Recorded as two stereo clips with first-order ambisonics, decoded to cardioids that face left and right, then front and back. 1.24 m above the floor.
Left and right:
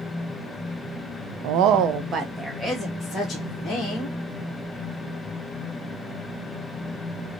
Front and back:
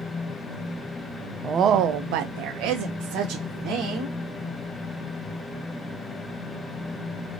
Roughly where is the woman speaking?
Right.